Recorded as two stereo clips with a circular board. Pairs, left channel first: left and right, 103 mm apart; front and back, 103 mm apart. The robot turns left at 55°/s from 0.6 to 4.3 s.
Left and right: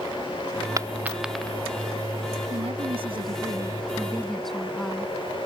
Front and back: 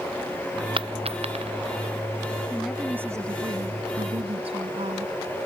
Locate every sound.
0.8 s a dropped coin: 150° right; by 1.5 s 170° left
2.5 s a woman speaking: 85° right; by 5.1 s 175° left